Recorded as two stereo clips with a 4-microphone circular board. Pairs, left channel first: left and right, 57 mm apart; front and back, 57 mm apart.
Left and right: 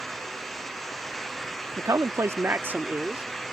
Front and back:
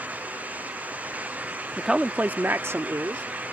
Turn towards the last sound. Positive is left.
turn(degrees=-155)